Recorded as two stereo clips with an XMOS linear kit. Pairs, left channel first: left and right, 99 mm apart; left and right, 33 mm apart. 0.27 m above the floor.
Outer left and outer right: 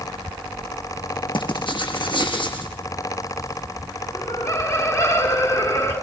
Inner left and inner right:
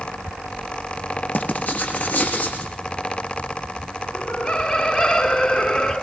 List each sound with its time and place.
1.3 s writing: 65° left (ahead or behind), 7 m
4.1 s laughter: 35° left (ahead or behind), 3.5 m